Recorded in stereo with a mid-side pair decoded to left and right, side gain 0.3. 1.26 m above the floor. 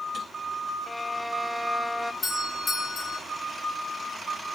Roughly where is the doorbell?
Left.